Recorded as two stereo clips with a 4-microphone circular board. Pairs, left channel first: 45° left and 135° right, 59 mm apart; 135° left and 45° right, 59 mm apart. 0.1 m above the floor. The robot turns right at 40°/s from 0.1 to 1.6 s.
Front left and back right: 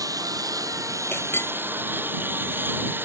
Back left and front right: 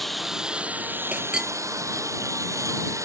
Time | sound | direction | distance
0.0 | a lawn mower | 140° right | ?
1.1 | a clink | 15° left | ?